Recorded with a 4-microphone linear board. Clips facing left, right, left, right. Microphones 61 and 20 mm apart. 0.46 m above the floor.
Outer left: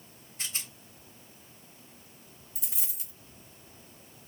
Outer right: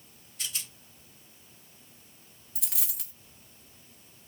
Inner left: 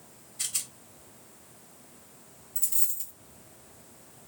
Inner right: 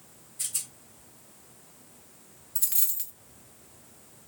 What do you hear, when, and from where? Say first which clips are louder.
0.4 s a rattle: even, inner left 2 dB; 30° left (ahead or behind), 1.2 m
2.5 s a dropped coin: outer right 4 dB, inner right 2 dB; 75° right (ahead or behind), 1.5 m